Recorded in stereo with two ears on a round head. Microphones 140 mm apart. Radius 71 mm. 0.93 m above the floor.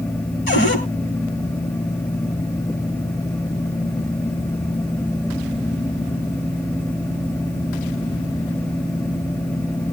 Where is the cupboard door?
60° left (ahead or behind), 8.5 m.